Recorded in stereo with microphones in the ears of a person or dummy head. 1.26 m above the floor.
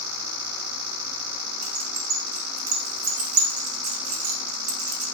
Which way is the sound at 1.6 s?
55° right (ahead or behind).